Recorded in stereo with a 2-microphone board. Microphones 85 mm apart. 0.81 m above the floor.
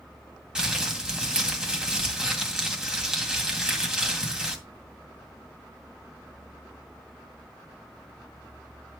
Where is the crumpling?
5° right (ahead or behind), 2.5 m.